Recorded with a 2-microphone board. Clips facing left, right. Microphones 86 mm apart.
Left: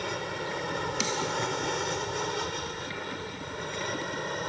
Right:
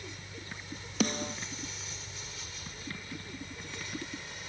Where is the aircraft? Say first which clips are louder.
Left 14 dB; 70° left (ahead or behind); by 4.5 s 55° left (ahead or behind).